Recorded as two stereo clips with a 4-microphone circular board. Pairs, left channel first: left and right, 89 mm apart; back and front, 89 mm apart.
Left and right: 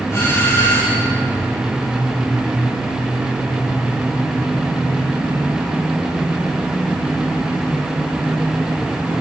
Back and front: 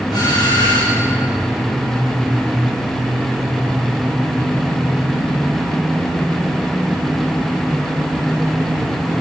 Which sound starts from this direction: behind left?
A doorbell, at 0.1 s.